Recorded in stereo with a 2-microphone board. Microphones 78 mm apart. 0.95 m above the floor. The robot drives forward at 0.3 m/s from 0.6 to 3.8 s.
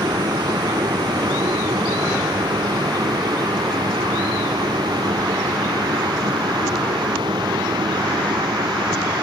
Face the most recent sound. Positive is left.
turn(degrees=-75)  # may be behind; listen again after turning